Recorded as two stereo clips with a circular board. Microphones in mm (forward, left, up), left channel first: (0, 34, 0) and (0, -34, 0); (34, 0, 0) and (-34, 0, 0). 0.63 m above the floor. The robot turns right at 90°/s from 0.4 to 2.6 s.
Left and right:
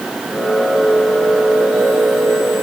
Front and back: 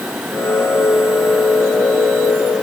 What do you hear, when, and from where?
Only background noise.